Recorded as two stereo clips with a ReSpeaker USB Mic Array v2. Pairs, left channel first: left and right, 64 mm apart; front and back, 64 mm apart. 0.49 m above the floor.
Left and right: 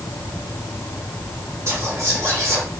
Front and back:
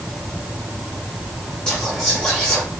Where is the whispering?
75° right, 1.1 m.